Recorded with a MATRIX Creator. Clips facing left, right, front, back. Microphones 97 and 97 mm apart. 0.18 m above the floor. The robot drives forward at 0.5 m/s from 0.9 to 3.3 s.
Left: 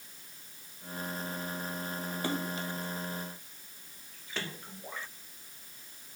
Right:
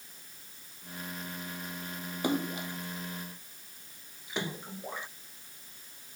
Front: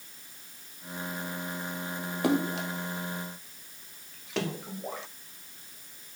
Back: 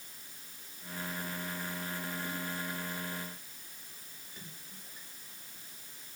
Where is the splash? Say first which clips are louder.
Right 5 dB, front 11 dB; 15° right.